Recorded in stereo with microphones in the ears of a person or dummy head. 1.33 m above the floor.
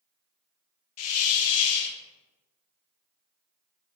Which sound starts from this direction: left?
A hiss, at 1.0 s.